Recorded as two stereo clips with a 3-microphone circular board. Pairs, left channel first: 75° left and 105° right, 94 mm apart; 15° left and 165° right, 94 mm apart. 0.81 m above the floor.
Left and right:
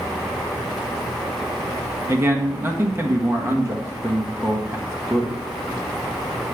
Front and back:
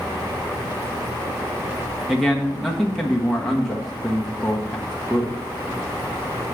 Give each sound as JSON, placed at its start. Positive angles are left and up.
{"t": 2.1, "sound": "a man speaking", "azimuth_deg": -70, "distance_m": 1.1}